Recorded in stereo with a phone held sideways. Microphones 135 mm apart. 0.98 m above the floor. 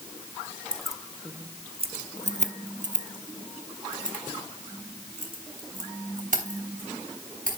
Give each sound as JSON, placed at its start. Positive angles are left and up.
{"t": 0.7, "sound": "keys jangling", "side_deg": 5, "distance_m": 0.7}